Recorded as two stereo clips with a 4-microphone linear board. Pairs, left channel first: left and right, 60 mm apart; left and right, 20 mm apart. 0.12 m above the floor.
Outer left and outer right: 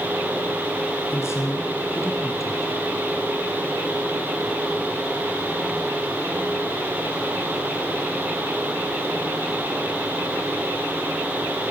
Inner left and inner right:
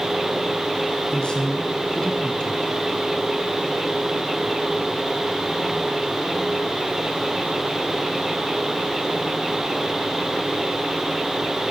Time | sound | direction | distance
1.1 | a woman speaking | 45° left (ahead or behind) | 2.5 m